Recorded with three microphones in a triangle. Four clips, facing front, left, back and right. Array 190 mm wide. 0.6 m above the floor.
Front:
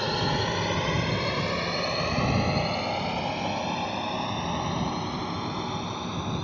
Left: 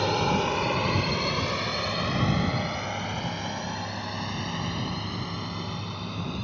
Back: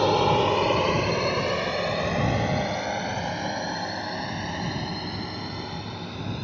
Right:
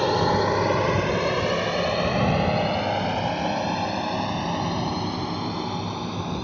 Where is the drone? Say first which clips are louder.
Right 4 dB, back 7 dB; 150° right; by 6.4 s 95° right.